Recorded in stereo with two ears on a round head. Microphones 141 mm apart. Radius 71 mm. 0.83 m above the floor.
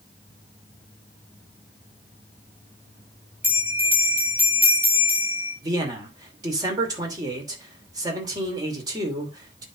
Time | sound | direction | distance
3.4 | a bell | 10° right (ahead or behind) | 3.5 m
5.6 | a man speaking | 25° right (ahead or behind) | 2.5 m